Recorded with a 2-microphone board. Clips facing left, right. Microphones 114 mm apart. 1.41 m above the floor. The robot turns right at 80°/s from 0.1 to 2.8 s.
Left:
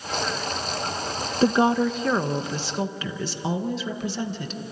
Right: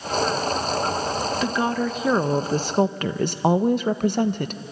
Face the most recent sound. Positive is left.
turn(degrees=-110)